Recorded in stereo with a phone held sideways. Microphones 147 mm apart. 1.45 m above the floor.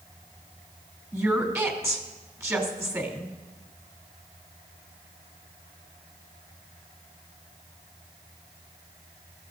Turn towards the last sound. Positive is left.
turn(degrees=-15)  # may be behind; listen again after turning